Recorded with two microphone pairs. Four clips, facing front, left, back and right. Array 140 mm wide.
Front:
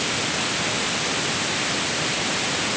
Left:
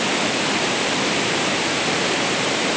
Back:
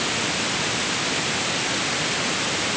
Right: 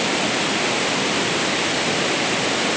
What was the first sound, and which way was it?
Only background noise.